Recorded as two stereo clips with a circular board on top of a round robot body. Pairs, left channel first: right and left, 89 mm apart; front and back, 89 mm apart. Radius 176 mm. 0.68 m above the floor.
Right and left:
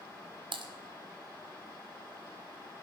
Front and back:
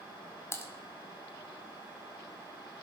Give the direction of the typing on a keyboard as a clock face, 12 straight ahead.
10 o'clock.